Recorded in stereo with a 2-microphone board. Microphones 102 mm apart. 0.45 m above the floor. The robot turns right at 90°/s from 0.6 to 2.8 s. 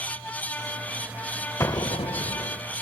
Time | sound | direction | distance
1.6 | an explosion | 30° left | 0.6 m